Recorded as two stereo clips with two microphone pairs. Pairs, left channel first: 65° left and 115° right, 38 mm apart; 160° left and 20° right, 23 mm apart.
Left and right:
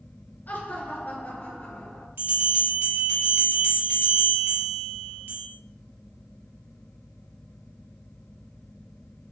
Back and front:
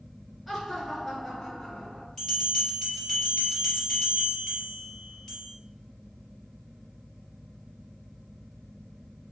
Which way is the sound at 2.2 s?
120° right.